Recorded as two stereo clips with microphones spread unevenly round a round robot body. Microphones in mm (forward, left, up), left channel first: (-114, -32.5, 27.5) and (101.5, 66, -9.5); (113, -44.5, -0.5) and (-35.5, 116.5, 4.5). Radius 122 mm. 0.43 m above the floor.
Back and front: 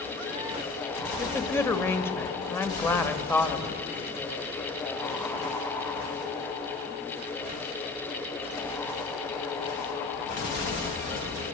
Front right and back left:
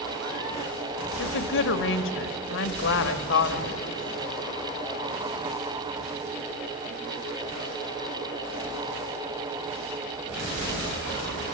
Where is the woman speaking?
70° right, 1.6 m.